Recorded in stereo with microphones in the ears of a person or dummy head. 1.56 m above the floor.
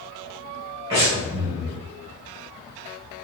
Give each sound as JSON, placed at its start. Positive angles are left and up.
{"t": 0.9, "sound": "breathing", "side_deg": -25, "distance_m": 1.9}